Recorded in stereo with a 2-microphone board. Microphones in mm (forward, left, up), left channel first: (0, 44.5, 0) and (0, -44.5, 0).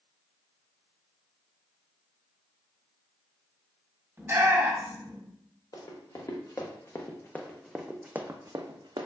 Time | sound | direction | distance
4.2 | a shout | 25° right (ahead or behind) | 1.4 m
5.7 | running footsteps | 50° left (ahead or behind) | 1.3 m